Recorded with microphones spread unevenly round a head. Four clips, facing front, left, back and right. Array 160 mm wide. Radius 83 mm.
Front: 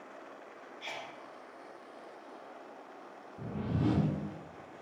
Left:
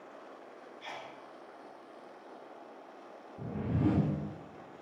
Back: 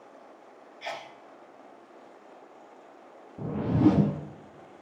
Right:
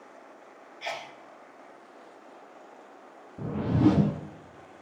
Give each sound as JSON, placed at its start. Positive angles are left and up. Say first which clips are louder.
{"t": 0.8, "sound": "a sneeze", "louder": "right 9 dB, back 7 dB", "azimuth_deg": -120, "distance_m": 1.4}
{"t": 3.4, "sound": "a whoosh", "louder": "right 8 dB, back 11 dB", "azimuth_deg": -140, "distance_m": 0.7}